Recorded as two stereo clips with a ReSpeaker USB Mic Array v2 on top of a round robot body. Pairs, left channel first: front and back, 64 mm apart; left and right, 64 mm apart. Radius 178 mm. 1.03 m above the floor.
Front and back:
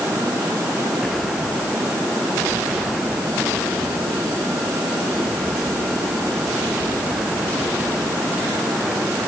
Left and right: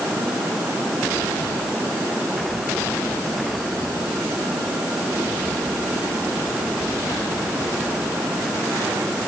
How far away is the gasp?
No gasp in this recording.